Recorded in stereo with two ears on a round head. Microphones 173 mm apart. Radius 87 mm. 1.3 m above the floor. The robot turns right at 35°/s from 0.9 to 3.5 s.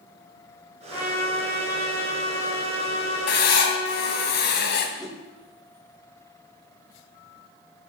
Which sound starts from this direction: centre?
A whoosh, at 5.0 s.